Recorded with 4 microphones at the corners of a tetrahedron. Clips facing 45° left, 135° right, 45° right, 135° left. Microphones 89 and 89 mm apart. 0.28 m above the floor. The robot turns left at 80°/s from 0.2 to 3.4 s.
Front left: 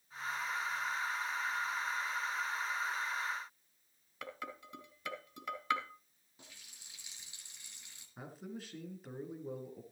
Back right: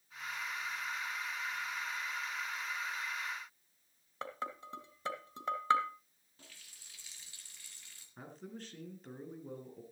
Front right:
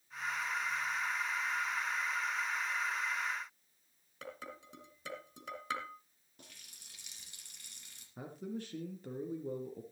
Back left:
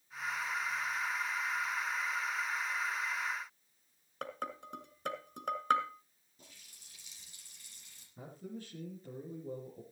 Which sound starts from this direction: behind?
Dishes clattering, at 4.2 s.